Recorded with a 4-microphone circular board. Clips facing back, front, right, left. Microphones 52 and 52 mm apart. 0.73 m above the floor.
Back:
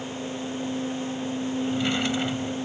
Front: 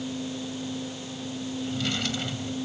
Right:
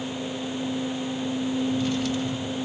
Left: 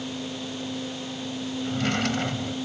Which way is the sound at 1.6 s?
110° left.